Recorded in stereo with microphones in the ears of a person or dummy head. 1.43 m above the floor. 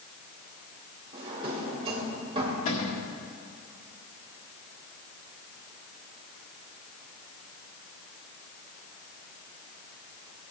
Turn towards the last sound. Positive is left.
turn(degrees=35)  # may be behind; listen again after turning